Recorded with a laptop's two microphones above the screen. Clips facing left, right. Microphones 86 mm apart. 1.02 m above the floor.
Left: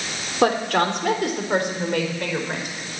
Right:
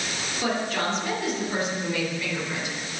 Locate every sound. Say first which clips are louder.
0.4 s a woman speaking: left 8 dB; 70° left (ahead or behind), 3 m; by 2.8 s 55° left (ahead or behind), 4 m